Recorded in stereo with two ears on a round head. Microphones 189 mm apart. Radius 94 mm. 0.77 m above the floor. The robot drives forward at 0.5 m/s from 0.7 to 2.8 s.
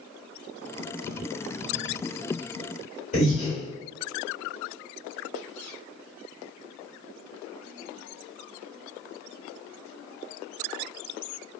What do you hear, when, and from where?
3.1 s breathing: 35° left (ahead or behind), 1.5 m